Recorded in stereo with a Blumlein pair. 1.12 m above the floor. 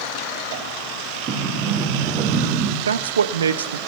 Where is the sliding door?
30° right, 2 m.